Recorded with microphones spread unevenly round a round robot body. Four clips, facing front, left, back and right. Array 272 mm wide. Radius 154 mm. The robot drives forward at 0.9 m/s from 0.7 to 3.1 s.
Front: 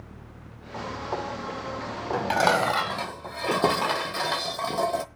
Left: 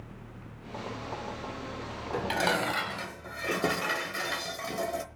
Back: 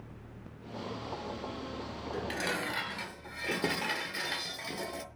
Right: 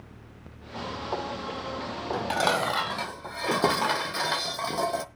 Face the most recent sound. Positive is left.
turn(degrees=-25)